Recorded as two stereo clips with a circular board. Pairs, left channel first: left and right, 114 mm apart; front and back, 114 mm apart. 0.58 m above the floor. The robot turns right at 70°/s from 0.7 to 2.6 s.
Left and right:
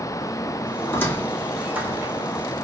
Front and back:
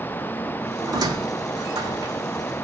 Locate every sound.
0.9 s a squeak: 140° left, 0.7 m; by 2.1 s 130° right, 0.7 m